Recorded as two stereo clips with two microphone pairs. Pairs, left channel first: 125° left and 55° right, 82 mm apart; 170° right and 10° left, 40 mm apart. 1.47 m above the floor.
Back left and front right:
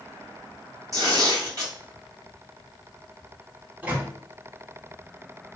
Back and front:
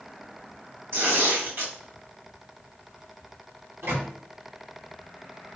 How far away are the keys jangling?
No keys jangling in this recording.